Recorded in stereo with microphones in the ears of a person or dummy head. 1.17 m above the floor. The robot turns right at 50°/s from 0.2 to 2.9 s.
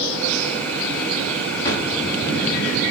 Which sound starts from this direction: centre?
A drawer, at 1.6 s.